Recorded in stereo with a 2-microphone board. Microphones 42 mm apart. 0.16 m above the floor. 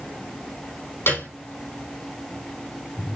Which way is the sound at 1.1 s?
80° left.